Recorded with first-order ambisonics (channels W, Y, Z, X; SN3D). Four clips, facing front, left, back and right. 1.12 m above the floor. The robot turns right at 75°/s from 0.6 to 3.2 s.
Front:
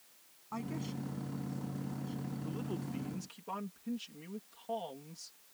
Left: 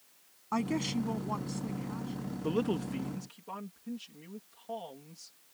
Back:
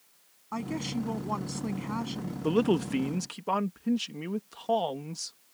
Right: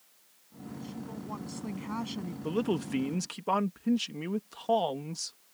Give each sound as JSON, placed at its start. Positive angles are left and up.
{"t": 0.5, "sound": "a woman speaking", "azimuth_deg": 110}
{"t": 2.4, "sound": "a man speaking", "azimuth_deg": 170}